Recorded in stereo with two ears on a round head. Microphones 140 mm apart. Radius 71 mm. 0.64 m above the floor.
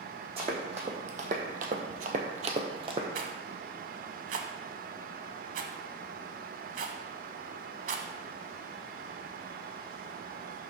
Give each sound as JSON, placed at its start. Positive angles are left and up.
{"t": 0.4, "sound": "running footsteps", "side_deg": -40, "distance_m": 1.9}
{"t": 3.1, "sound": "a rattle", "side_deg": -55, "distance_m": 0.8}